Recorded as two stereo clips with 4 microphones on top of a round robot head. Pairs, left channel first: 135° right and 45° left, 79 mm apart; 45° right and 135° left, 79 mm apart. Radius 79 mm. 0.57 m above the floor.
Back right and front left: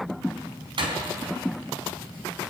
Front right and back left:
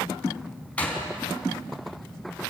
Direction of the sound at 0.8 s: 30° left.